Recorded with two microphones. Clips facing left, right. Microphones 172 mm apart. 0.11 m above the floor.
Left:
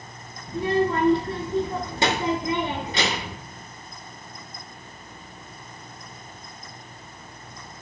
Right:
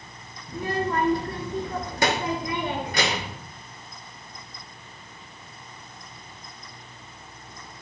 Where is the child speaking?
25° left (ahead or behind), 0.8 m.